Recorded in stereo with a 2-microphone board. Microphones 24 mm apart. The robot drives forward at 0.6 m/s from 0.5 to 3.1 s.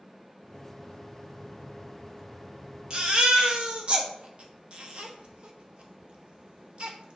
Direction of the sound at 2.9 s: 40° right (ahead or behind).